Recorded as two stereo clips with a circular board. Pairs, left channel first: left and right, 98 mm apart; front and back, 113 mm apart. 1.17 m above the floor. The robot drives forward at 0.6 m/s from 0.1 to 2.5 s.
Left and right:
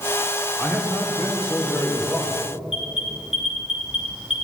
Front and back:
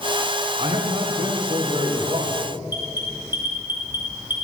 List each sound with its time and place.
0.6 s a man speaking: 165° left, 3 m; by 2.4 s 170° left, 4 m
2.7 s an alarm: 110° left, 3 m